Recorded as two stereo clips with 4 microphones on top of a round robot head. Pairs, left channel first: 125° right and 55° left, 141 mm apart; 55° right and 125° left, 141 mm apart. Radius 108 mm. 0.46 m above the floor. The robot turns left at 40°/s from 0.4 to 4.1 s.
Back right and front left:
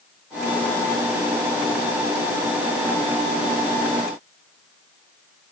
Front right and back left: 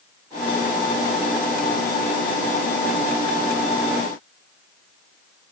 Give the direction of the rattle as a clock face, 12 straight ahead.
No rattle in this recording.